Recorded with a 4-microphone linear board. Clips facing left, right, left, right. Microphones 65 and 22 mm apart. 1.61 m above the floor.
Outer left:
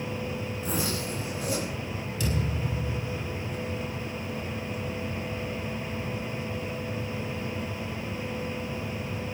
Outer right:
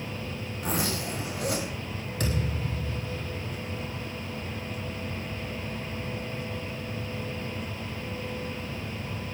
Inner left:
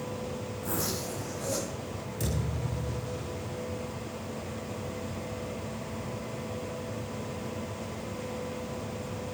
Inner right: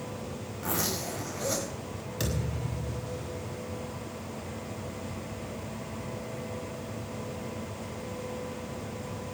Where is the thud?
55° right (ahead or behind), 6.5 m.